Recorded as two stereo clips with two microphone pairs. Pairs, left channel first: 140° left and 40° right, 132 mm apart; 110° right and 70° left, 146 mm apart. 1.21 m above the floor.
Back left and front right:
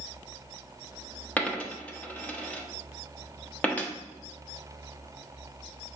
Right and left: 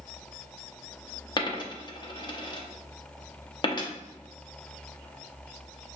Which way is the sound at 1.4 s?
145° right.